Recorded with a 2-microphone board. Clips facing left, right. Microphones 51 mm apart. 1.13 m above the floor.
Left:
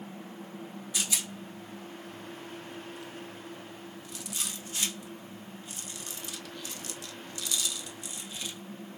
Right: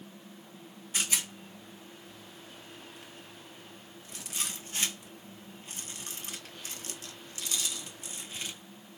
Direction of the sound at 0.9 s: 40° right (ahead or behind).